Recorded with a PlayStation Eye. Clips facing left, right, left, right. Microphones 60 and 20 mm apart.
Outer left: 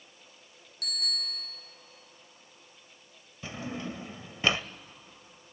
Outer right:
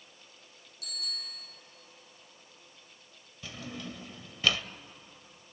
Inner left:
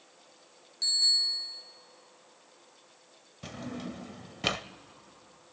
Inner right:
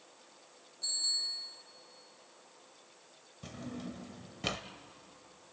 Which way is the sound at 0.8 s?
65° left (ahead or behind).